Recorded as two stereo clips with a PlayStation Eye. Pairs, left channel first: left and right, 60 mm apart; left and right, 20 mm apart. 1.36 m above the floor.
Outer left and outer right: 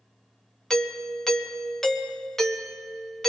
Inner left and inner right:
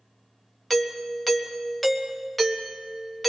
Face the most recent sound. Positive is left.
turn(degrees=10)  # may be behind; listen again after turning